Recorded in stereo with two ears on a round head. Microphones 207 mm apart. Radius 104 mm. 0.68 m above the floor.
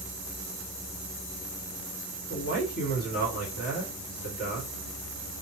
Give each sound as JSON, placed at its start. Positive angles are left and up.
{"t": 2.3, "sound": "a man speaking", "side_deg": 40, "distance_m": 1.6}